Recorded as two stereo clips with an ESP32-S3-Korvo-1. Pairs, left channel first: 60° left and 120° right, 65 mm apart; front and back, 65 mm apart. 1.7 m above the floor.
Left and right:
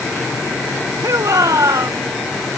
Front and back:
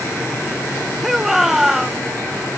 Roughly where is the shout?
Right.